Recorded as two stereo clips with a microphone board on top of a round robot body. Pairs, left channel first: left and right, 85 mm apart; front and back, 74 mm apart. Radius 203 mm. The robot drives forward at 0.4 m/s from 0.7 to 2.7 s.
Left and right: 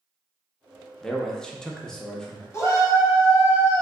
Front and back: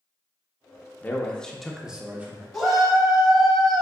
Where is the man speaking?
15° left, 0.8 m; by 2.4 s 165° left, 0.8 m.